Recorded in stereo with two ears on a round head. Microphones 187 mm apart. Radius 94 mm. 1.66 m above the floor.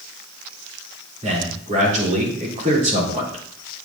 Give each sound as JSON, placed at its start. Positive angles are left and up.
{"t": 1.2, "sound": "a man speaking", "side_deg": -40, "distance_m": 3.5}